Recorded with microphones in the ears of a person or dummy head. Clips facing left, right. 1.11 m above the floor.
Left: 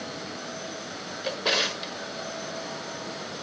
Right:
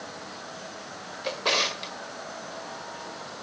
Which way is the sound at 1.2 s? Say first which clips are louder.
Even; 5° left (ahead or behind).